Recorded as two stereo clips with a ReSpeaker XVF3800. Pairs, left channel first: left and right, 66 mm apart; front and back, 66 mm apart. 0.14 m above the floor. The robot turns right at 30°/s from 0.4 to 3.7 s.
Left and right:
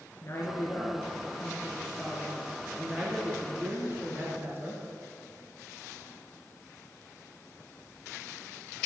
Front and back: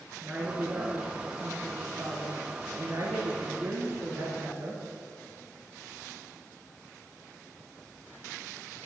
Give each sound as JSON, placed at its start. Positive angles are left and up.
{"t": 0.2, "sound": "a woman speaking", "azimuth_deg": 125, "distance_m": 2.5}